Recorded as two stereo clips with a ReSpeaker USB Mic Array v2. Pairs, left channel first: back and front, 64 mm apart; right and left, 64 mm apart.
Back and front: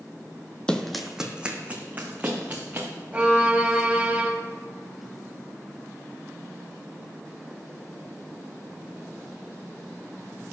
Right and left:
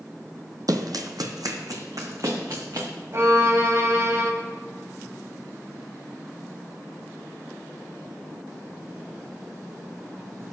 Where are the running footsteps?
105° left, 0.7 m; by 2.9 s 55° left, 2.5 m.